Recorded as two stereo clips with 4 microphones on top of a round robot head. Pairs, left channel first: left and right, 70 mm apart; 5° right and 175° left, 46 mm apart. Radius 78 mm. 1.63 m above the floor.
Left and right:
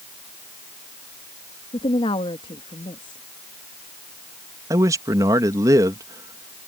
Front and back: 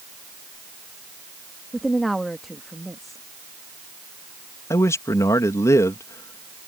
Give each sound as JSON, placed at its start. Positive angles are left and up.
{"t": 1.7, "sound": "a woman speaking", "azimuth_deg": 85}
{"t": 4.7, "sound": "a man speaking", "azimuth_deg": -40}